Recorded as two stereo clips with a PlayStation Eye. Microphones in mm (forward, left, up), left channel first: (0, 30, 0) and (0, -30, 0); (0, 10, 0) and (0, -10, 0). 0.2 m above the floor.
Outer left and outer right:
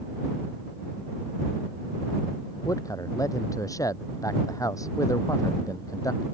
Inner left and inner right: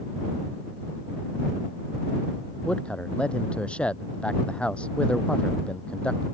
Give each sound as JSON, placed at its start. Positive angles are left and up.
{"t": 2.6, "sound": "a man speaking", "side_deg": 70}